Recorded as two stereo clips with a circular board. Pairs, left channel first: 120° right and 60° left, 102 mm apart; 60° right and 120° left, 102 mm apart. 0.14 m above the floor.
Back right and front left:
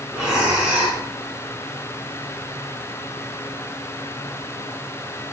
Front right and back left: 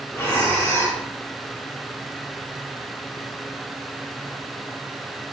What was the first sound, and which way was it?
Breathing, 20° right.